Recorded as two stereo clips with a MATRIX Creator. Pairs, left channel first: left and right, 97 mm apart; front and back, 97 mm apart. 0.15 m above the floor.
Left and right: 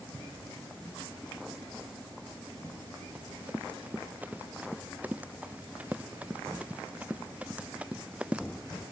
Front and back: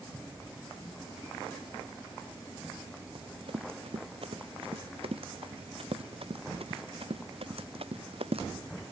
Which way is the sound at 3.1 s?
160° right.